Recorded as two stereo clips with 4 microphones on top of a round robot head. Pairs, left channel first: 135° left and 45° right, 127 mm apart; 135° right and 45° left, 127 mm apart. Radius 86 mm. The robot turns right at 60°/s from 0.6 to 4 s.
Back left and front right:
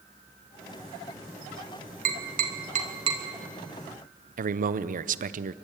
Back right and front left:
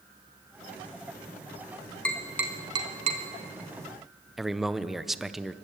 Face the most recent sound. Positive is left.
turn(degrees=-45)